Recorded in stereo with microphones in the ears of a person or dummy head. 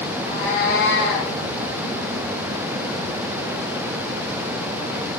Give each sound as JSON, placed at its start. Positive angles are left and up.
{"t": 0.1, "sound": "a cat meowing", "side_deg": 80, "distance_m": 5.5}